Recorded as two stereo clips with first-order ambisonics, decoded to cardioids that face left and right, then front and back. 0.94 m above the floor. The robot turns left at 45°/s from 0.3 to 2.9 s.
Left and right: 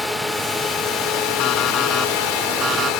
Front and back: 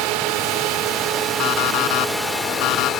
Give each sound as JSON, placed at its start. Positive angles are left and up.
{"t": 0.0, "sound": "a drone", "azimuth_deg": 175}
{"t": 1.4, "sound": "an alarm clock", "azimuth_deg": 40}